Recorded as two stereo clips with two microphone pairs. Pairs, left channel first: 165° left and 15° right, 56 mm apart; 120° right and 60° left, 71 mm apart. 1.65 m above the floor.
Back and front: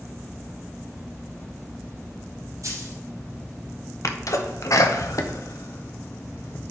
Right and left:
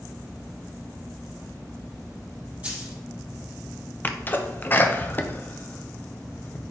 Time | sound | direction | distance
2.6 | a dropped coin | 10° right | 4 m
4.0 | a sneeze | straight behind | 1.0 m